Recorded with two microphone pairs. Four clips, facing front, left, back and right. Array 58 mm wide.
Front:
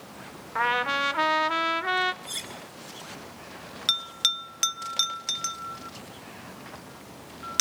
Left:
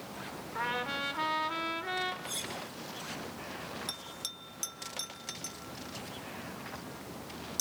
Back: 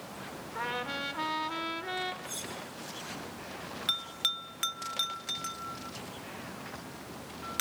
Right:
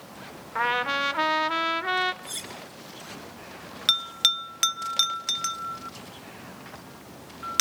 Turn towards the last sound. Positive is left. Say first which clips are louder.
# right 16 dB, front 7 dB
turn(degrees=-80)